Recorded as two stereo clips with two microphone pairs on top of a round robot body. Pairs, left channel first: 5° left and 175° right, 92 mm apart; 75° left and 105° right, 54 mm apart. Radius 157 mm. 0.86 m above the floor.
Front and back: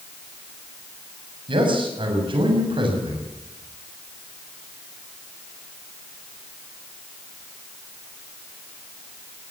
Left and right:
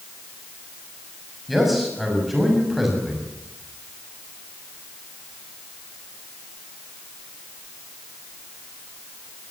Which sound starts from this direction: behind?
A man speaking, at 1.5 s.